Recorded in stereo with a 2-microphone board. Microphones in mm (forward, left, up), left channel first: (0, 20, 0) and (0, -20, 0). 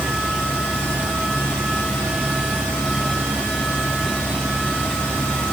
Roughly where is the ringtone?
No ringtone in this recording.